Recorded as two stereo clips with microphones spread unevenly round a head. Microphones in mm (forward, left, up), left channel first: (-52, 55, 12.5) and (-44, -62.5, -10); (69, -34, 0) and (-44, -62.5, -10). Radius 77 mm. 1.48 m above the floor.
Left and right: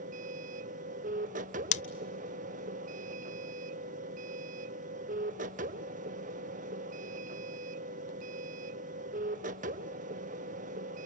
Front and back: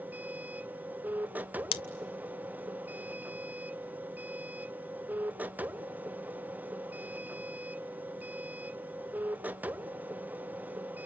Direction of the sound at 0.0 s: 90° right.